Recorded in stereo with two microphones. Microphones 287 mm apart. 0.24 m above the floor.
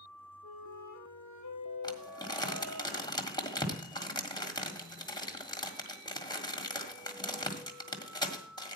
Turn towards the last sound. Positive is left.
turn(degrees=15)  # may be behind; listen again after turning